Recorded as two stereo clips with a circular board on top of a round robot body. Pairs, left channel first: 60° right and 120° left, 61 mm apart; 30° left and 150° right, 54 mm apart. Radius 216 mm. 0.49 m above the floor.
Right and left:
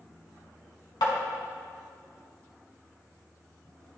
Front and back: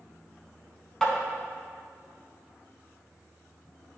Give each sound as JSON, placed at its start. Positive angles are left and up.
{"t": 1.0, "sound": "tapping", "azimuth_deg": -50, "distance_m": 1.1}